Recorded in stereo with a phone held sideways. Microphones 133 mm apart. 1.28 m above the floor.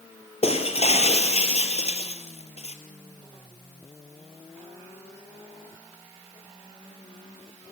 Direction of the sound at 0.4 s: 50° left (ahead or behind).